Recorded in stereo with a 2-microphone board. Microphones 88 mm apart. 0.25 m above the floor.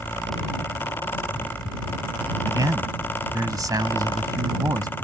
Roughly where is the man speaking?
Right.